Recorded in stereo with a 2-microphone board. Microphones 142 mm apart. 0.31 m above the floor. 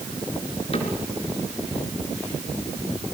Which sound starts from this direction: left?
A cupboard door, at 0.7 s.